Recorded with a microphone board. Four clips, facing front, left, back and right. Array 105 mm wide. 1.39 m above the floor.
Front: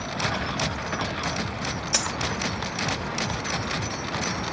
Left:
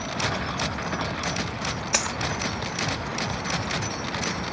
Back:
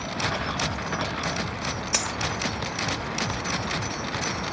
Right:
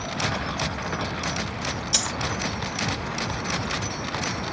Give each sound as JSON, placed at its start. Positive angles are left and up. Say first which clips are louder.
{"t": 1.9, "sound": "a dropped coin", "louder": "left 2 dB, front 1 dB", "azimuth_deg": 95, "distance_m": 1.0}